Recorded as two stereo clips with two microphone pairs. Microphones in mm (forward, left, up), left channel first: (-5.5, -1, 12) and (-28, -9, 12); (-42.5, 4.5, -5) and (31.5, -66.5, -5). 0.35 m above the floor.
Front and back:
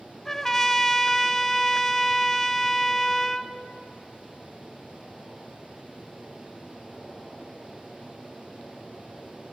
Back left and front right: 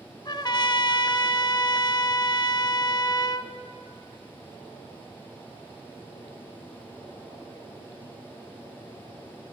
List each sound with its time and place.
0.2 s a trumpet: 90° left, 0.8 m